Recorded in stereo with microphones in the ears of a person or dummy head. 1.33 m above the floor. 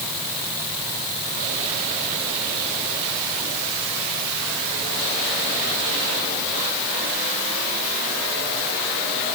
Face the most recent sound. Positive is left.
No sound to turn to.